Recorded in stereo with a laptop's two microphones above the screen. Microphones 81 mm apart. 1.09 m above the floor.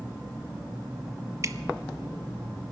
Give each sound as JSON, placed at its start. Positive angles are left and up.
{"t": 1.4, "sound": "dripping", "side_deg": -40, "distance_m": 0.6}